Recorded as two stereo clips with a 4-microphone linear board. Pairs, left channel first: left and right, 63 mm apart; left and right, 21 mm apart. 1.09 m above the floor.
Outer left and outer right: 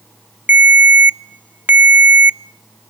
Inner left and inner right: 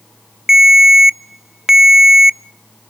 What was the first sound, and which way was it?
A ringtone, 30° right (ahead or behind).